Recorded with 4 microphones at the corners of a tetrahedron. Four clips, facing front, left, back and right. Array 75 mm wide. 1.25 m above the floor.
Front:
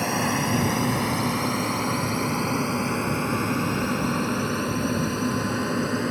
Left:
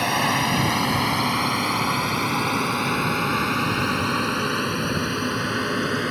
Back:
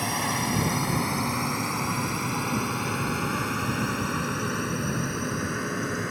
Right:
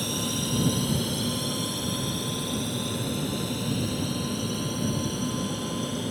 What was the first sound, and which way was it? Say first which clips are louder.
A drone: left 9 dB, front 3 dB; 85° left.